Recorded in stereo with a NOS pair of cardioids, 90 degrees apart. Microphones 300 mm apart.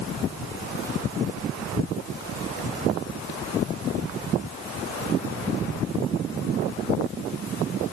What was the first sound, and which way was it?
Only background noise.